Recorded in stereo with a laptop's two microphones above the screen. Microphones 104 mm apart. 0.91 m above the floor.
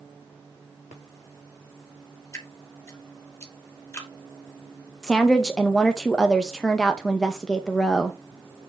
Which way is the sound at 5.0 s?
5° left (ahead or behind).